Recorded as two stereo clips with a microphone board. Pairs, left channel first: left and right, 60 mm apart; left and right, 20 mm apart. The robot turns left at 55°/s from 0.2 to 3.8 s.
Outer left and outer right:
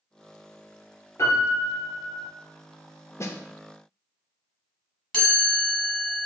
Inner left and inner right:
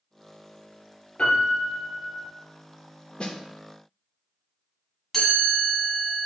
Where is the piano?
120° left, 1.8 m; by 2.3 s 55° left, 1.8 m.